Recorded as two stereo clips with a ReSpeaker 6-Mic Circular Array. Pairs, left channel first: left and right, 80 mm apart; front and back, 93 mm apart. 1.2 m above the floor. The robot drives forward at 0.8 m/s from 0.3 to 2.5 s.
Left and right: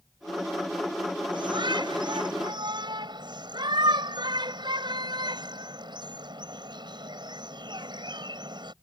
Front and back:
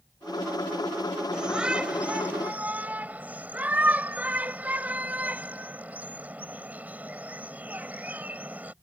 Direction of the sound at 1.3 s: 100° right.